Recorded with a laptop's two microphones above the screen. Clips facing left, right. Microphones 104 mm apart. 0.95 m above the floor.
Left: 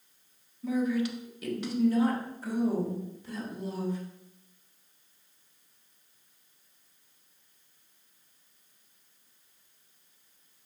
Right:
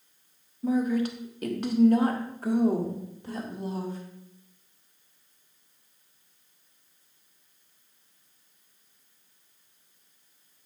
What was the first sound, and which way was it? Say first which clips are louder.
A woman speaking: right 3 dB; 40° right (ahead or behind).